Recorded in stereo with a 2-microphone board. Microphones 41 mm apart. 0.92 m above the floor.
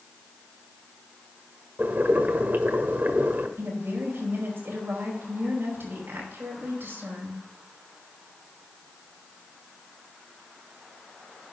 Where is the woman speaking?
65° right (ahead or behind), 5 m.